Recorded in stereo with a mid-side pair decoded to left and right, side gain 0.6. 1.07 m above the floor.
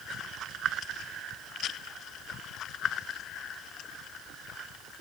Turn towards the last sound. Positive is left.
No sound to turn to.